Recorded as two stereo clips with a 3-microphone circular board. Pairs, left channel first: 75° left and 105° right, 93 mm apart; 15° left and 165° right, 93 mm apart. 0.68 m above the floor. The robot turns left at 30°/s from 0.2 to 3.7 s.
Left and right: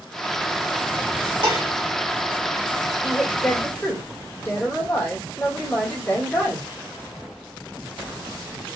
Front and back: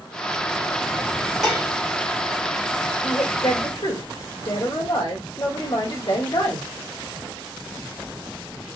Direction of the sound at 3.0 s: 25° left.